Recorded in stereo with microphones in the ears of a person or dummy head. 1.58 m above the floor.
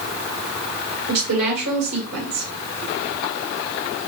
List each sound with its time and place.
1.1 s a woman speaking: 85° right, 1.4 m